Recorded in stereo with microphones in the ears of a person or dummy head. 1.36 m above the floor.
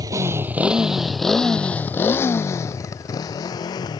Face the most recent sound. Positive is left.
turn(degrees=30)  # may be behind; listen again after turning